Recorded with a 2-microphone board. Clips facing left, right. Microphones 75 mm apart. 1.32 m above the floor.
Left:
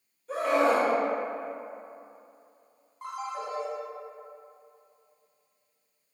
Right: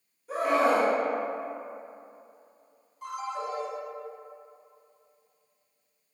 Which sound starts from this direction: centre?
A scream, at 0.3 s.